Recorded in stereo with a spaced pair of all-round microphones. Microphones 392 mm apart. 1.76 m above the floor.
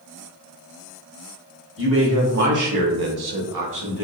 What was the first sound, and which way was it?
A man speaking, 30° right (ahead or behind).